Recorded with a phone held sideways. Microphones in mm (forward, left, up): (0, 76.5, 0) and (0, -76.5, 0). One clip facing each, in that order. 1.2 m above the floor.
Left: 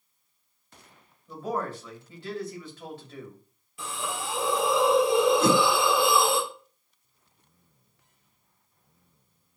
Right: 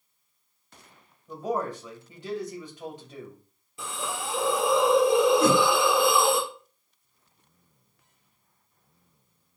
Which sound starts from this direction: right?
A hiss, at 3.8 s.